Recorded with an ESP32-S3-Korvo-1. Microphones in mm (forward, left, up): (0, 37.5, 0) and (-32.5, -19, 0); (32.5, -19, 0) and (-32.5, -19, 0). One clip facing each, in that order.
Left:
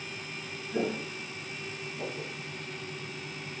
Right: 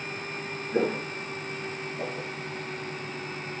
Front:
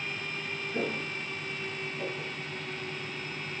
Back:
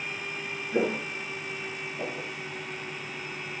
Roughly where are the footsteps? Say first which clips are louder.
Right 5 dB, back 6 dB; behind.